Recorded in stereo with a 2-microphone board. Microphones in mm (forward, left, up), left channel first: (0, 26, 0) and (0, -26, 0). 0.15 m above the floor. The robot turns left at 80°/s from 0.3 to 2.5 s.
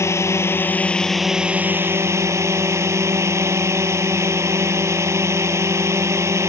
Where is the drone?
70° left; by 6.5 s 105° right.